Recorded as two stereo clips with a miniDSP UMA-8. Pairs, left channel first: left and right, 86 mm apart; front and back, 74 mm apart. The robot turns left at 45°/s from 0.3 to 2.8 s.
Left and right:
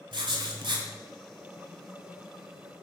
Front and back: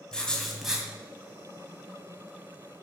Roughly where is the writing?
Right.